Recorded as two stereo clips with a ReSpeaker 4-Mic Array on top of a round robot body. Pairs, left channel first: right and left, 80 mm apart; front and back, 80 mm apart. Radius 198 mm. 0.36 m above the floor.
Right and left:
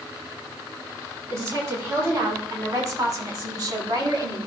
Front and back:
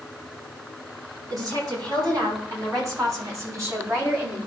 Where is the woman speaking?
145° left, 7 m; by 4.5 s 120° left, 6.5 m.